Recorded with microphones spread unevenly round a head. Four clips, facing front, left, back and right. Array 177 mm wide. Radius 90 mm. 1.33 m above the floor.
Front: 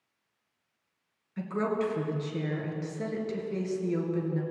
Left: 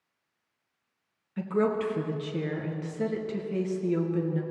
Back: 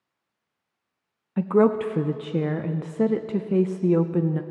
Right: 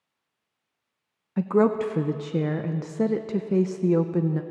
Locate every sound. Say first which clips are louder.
1.4 s a woman speaking: right 6 dB, back 10 dB; 145° right, 0.5 m